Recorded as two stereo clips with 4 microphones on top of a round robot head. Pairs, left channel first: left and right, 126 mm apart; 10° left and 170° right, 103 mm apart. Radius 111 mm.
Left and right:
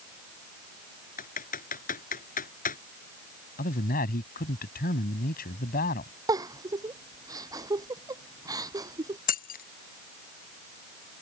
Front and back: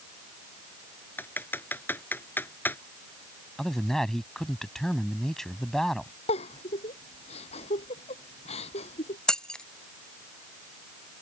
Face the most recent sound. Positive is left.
turn(degrees=90)